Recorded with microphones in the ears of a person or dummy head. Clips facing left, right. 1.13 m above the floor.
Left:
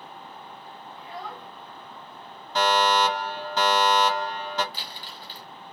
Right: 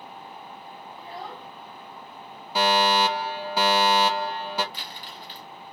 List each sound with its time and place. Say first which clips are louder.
1.0 s a child speaking: even; 25° right (ahead or behind), 1.6 m
2.5 s a fire alarm: even; 10° right (ahead or behind), 1.7 m
4.7 s crumpling: right 1 dB; 35° left (ahead or behind), 1.5 m